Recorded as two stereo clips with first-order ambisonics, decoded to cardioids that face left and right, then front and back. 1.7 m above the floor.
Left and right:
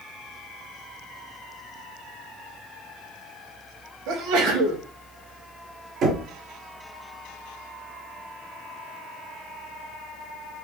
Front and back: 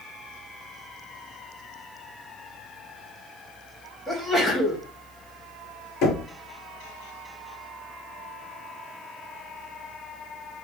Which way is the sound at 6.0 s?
45° right.